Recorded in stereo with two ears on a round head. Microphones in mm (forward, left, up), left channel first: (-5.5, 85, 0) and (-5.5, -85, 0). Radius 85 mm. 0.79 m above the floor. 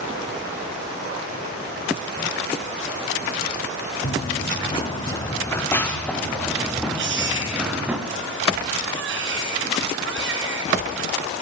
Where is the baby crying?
65° right (ahead or behind), 6 m.